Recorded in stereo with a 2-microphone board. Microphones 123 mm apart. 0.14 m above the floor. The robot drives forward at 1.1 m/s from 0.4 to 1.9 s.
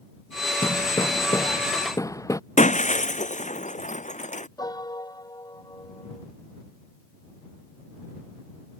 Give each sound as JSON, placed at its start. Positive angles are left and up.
{"t": 0.6, "sound": "hammering", "side_deg": 35}
{"t": 2.6, "sound": "breaking glass", "side_deg": 80}
{"t": 4.6, "sound": "a piano", "side_deg": 30}